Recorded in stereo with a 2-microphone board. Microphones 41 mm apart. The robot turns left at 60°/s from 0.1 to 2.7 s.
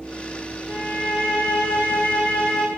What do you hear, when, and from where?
0.7 s a violin: 125° left, 5.5 m; by 2.7 s 5° left, 5.5 m